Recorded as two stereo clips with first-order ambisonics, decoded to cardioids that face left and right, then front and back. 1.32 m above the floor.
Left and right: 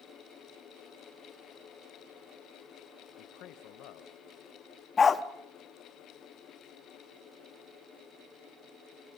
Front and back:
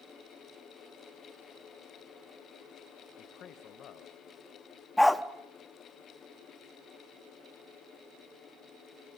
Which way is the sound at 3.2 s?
55° left.